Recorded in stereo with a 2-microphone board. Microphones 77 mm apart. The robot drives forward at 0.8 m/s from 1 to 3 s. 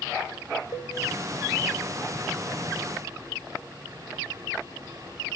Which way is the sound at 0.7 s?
60° left (ahead or behind).